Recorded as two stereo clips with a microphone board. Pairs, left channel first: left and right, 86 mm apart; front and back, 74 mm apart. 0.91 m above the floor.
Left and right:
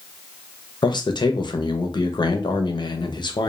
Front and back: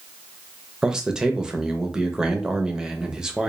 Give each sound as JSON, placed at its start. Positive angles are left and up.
{"t": 0.8, "sound": "a man speaking", "azimuth_deg": 100, "distance_m": 0.5}